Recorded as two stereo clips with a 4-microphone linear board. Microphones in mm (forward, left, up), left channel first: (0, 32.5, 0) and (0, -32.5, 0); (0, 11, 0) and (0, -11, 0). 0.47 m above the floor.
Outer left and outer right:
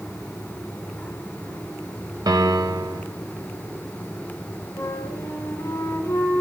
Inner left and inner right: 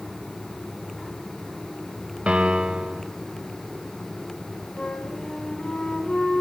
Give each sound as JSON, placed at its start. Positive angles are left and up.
{"t": 2.3, "sound": "a piano", "side_deg": -80, "distance_m": 0.6}
{"t": 4.8, "sound": "a flute", "side_deg": 50, "distance_m": 2.5}